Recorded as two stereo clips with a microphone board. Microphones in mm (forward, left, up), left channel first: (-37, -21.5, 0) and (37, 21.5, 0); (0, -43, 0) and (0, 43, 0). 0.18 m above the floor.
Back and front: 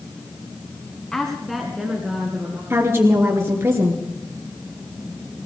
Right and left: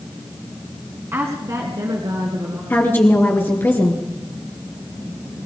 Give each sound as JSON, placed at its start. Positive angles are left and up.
{"t": 1.1, "sound": "a woman speaking", "azimuth_deg": 130, "distance_m": 1.9}
{"t": 2.7, "sound": "a woman speaking", "azimuth_deg": -30, "distance_m": 3.0}